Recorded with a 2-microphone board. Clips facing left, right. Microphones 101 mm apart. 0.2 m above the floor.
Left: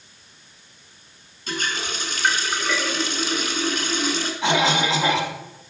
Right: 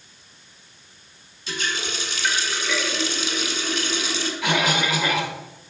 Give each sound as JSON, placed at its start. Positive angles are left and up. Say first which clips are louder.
{"t": 1.5, "sound": "a running tap", "louder": "left 1 dB", "side_deg": 50, "distance_m": 1.2}
{"t": 4.4, "sound": "a cough", "louder": "left 3 dB", "side_deg": 30, "distance_m": 1.1}